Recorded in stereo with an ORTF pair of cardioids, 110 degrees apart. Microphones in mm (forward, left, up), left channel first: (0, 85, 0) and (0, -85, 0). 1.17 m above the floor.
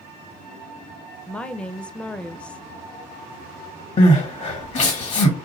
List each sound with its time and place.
1.3 s a woman speaking: 5° left, 0.5 m
4.0 s crying: 40° left, 1.3 m